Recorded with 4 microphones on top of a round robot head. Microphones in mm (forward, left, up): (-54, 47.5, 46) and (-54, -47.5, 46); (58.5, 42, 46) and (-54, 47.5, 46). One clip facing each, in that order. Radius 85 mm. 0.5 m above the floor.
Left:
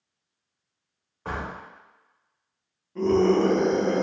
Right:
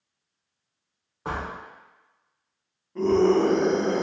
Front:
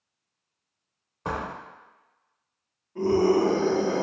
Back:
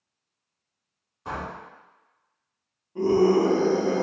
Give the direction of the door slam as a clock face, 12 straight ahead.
1 o'clock.